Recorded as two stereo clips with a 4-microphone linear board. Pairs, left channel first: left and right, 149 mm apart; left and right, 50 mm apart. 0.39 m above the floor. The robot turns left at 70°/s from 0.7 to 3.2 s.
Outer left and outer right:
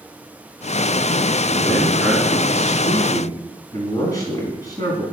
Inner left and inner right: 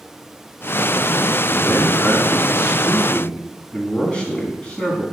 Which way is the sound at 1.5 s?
145° left.